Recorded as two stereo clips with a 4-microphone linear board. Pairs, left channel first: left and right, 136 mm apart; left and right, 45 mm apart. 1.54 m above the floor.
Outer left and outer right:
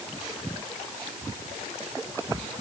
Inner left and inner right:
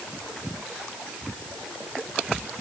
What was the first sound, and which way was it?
Only background noise.